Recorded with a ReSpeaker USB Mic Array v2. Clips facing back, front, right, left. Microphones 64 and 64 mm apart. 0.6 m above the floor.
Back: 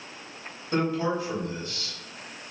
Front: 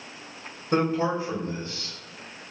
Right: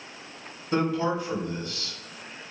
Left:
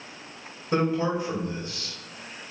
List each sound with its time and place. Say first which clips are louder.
0.7 s a man speaking: front 2 dB, left 1 dB; 25° left, 1.4 m